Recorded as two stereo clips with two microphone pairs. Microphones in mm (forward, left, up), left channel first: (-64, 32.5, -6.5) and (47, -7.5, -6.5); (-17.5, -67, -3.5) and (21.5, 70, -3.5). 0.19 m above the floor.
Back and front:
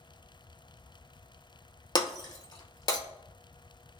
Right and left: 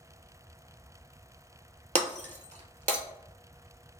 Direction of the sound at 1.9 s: 110° left.